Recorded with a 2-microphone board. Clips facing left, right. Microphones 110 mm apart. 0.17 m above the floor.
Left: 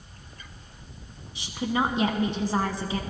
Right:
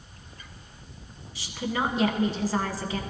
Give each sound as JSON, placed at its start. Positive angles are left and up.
{"t": 1.4, "sound": "a woman speaking", "side_deg": 25, "distance_m": 1.2}